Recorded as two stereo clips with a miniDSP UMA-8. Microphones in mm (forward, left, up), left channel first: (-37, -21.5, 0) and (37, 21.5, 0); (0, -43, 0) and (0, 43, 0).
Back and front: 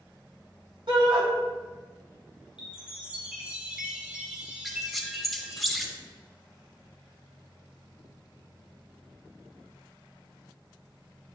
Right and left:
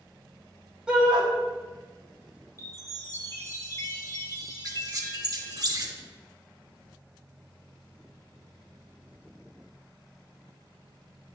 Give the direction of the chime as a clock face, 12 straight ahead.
2 o'clock.